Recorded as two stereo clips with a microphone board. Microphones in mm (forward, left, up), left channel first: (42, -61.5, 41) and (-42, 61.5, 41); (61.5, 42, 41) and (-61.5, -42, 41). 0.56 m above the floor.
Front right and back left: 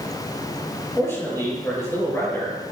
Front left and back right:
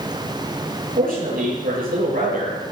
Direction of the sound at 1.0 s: 130° right.